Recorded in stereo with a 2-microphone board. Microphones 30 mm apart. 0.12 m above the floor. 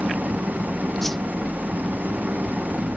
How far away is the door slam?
I don't hear a door slam.